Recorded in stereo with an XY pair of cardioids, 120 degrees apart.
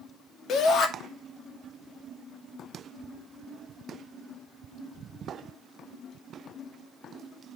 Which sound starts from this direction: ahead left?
A shout, at 0.5 s.